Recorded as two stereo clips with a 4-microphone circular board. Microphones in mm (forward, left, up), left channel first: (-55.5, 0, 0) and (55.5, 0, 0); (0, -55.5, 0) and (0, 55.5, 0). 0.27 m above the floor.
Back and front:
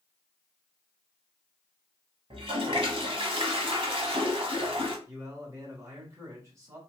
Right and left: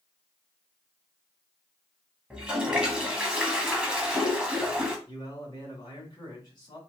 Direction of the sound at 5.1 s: 55° right.